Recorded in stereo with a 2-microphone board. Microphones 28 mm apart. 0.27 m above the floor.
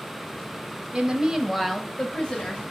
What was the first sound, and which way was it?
A woman speaking, 30° right (ahead or behind).